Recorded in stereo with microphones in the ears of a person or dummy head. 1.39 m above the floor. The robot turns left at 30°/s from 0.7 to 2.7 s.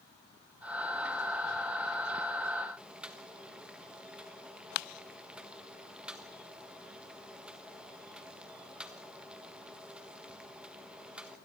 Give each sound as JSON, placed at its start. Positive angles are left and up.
{"t": 2.8, "sound": "boiling", "side_deg": -5, "distance_m": 1.4}